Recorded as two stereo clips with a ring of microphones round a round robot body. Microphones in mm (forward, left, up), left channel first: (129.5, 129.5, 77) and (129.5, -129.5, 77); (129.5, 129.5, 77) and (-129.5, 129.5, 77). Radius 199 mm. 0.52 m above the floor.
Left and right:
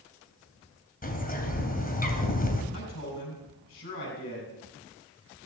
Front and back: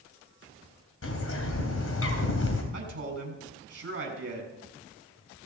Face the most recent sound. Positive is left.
turn(degrees=135)